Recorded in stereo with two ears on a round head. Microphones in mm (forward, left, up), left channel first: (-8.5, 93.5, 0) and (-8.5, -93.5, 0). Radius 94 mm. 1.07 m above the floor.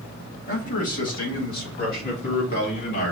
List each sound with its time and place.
0.5 s a man speaking: 35° left (ahead or behind), 1.8 m; by 3.1 s 45° left (ahead or behind), 3 m